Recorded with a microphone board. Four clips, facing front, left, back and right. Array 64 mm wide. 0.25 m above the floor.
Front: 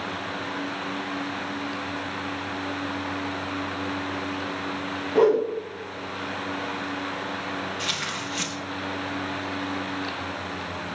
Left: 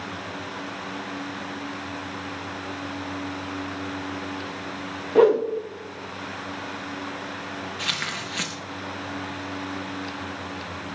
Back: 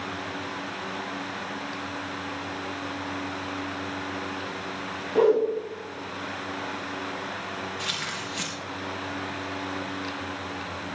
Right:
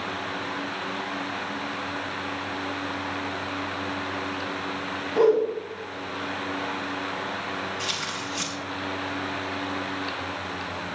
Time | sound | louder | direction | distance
5.2 | a whoosh | left 3 dB, front 1 dB | 90° left | 6 m
7.8 | tearing paper | left 1 dB, front 2 dB | 85° left | 4.5 m